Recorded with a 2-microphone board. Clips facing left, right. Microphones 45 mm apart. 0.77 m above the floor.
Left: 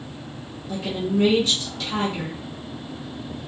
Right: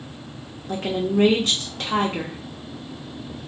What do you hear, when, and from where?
0.7 s a woman speaking: 50° right (ahead or behind), 0.8 m